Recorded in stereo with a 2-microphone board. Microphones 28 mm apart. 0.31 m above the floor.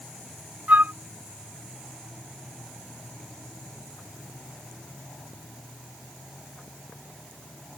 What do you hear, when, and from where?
0.7 s a flute: 75° right (ahead or behind)